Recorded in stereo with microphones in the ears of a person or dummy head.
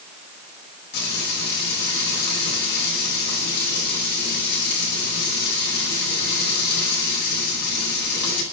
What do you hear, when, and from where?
0.9 s frying: 70° left (ahead or behind), 10 m